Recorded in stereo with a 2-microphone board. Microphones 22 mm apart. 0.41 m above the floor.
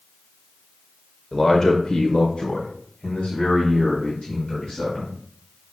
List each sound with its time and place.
1.3 s a man speaking: 10° left (ahead or behind), 1.3 m; by 5.1 s 50° left (ahead or behind), 4.5 m